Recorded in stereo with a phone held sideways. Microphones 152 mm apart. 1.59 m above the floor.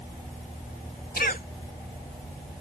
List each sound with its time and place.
1.2 s a cough: 75° left (ahead or behind)